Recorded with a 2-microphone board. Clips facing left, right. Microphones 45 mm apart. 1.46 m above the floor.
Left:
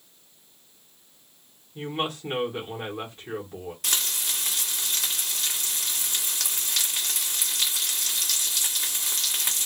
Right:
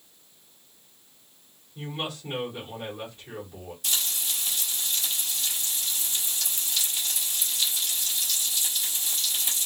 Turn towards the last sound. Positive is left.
turn(degrees=65)  # may be behind; listen again after turning